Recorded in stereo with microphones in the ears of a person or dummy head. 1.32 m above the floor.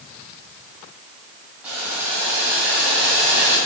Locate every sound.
1.6 s boiling: 10° right (ahead or behind), 3.5 m